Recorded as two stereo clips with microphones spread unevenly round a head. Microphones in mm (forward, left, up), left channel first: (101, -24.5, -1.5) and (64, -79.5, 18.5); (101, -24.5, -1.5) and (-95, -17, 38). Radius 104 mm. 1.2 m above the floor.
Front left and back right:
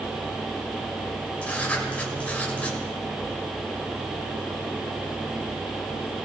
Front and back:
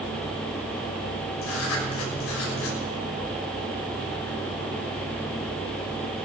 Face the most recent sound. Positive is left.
turn(degrees=-15)